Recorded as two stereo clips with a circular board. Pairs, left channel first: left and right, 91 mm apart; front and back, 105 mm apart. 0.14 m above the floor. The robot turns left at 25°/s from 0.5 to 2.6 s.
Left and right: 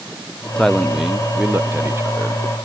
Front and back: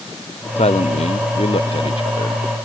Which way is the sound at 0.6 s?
5° left.